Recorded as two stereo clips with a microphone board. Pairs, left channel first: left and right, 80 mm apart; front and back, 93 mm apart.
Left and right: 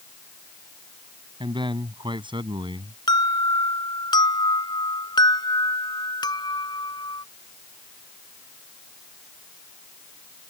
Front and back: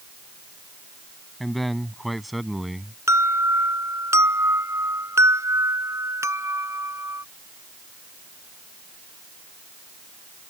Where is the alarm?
120° left.